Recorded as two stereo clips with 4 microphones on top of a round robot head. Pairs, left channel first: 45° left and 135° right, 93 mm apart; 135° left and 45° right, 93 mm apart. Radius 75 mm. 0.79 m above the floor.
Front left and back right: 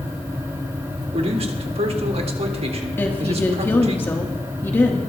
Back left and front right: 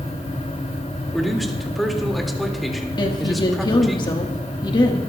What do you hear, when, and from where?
1.1 s a man speaking: 135° right, 2 m
3.0 s a woman speaking: 110° left, 1.3 m